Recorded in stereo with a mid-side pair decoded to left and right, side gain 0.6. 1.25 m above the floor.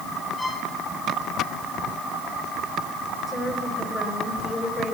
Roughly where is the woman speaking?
Ahead.